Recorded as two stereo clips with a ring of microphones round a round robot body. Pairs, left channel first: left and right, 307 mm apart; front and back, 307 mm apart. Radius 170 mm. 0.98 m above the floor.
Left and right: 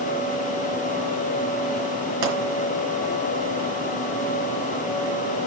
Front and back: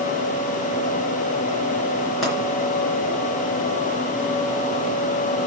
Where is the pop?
90° right, 3.5 m.